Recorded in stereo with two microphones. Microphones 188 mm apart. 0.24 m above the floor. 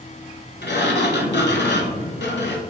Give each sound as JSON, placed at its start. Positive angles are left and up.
{"t": 0.6, "sound": "a sliding door", "side_deg": 85, "distance_m": 0.6}